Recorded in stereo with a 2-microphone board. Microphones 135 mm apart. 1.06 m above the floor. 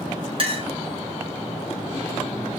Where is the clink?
45° right (ahead or behind), 0.9 m.